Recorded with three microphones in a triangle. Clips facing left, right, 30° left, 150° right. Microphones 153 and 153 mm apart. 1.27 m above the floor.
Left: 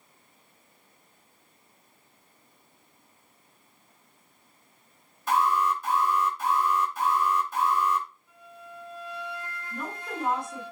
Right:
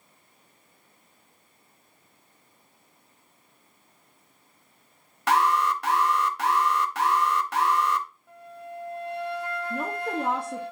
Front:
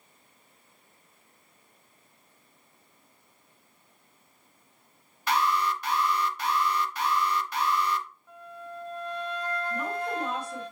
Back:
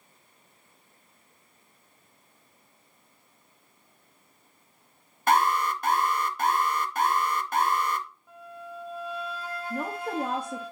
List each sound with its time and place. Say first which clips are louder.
5.3 s an alarm: right 2 dB, back 3 dB; 105° right, 0.8 m
8.3 s a flute: right 6 dB, even; 70° right, 1.3 m
9.7 s a woman speaking: right 6 dB, back 4 dB; 105° right, 1.6 m